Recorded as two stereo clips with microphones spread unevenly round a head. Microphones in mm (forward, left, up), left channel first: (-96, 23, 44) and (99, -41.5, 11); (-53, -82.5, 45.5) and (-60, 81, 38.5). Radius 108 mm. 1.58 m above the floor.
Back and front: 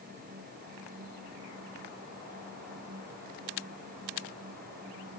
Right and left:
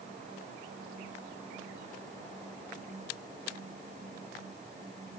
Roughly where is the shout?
I don't hear a shout.